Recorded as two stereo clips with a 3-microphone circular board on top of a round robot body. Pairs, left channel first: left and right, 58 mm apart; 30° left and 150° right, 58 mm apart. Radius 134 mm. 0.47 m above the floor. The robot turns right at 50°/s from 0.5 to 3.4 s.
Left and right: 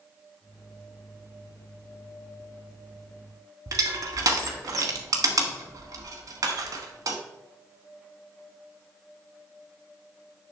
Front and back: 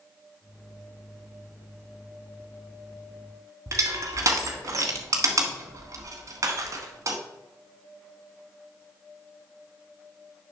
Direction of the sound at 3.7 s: 115° right.